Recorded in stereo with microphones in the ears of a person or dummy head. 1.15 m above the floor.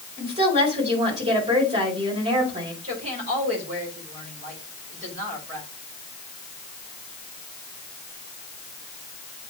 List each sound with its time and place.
0.2 s a woman speaking: 30° right (ahead or behind), 4.5 m
2.8 s a woman speaking: 30° right (ahead or behind), 4 m